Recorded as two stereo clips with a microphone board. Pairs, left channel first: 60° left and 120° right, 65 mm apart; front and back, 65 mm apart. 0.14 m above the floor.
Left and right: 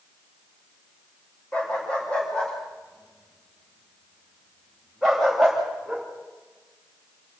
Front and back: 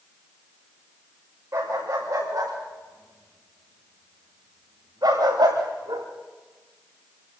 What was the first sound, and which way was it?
A dog barking, 130° left.